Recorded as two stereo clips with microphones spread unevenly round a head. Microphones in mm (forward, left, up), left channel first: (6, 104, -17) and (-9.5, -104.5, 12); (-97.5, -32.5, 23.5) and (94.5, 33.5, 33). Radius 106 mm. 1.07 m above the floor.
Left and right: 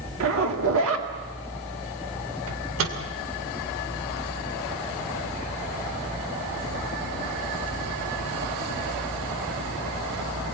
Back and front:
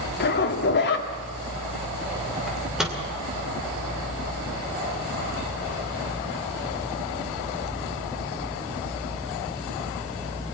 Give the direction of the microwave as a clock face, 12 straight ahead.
2 o'clock.